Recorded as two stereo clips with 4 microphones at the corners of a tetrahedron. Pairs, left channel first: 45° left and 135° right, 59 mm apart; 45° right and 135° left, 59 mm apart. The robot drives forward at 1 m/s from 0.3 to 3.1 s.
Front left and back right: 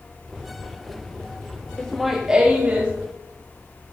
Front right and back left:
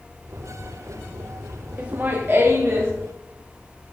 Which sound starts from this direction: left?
Laughter, at 1.8 s.